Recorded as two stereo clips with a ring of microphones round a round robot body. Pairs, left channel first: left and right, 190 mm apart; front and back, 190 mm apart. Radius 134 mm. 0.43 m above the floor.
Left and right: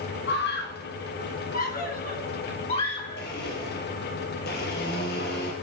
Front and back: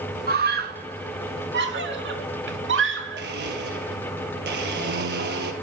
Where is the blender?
145° left, 4 m.